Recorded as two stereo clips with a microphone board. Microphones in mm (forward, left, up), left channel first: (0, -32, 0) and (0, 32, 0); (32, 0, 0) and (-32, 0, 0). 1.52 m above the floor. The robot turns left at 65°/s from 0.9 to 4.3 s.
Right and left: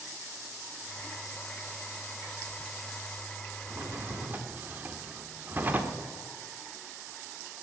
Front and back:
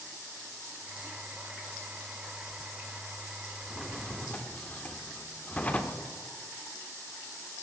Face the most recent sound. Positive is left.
turn(degrees=55)